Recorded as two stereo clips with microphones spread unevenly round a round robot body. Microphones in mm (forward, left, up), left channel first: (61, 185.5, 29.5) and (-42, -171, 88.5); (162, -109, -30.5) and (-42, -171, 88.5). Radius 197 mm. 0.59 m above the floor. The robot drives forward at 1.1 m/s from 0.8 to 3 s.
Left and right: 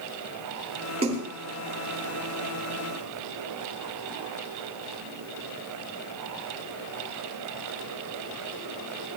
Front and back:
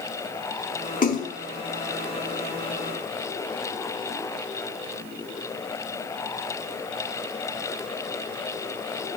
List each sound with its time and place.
1.0 s a splash: 30° right, 7.5 m